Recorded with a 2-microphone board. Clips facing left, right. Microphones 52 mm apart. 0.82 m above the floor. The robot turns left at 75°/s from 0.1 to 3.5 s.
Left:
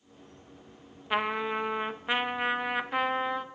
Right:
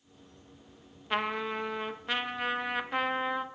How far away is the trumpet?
About 0.5 m.